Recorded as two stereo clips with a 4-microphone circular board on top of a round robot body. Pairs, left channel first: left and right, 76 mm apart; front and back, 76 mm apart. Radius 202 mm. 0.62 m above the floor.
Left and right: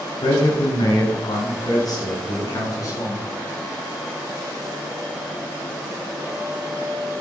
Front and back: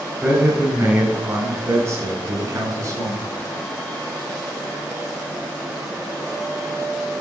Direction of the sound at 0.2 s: 110° left.